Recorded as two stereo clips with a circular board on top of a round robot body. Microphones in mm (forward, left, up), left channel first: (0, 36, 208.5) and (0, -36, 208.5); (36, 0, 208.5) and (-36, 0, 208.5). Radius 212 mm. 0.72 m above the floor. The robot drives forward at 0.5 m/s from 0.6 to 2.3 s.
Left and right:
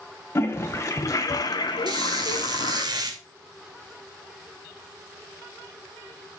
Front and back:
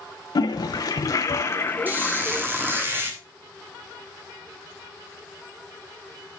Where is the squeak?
115° right, 2.5 m; by 3.2 s 120° right, 2.5 m.